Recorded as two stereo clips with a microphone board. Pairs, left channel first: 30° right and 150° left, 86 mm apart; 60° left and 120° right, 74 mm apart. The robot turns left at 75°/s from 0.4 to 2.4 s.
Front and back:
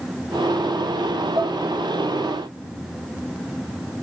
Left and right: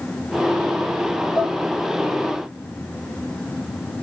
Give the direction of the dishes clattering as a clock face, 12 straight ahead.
8 o'clock.